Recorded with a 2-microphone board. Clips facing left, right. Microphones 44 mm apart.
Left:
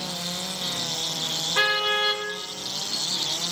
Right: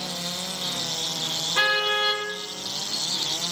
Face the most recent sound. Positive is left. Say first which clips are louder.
# even
turn(degrees=15)  # may be behind; listen again after turning